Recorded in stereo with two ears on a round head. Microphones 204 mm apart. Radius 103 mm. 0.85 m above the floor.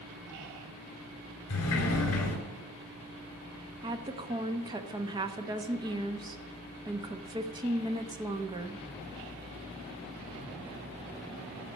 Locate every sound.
1.5 s a sliding door: 70° left (ahead or behind), 2.5 m
3.8 s a woman speaking: 20° right (ahead or behind), 0.9 m